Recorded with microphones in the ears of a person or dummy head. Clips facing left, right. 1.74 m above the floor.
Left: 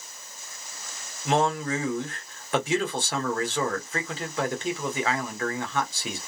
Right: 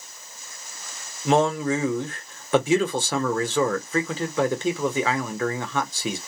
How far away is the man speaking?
About 1.3 m.